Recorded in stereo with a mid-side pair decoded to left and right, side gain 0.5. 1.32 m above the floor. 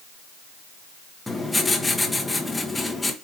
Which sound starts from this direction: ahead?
Writing, at 1.3 s.